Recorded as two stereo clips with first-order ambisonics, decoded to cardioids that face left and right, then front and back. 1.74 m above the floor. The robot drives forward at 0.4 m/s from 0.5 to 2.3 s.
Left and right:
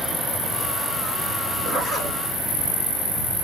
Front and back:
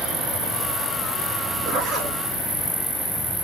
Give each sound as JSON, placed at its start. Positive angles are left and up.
{"t": 1.6, "sound": "a zipper", "azimuth_deg": -140, "distance_m": 3.0}